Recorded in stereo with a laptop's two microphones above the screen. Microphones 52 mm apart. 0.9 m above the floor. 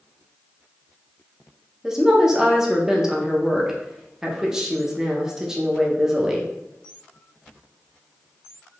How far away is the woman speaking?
About 0.5 m.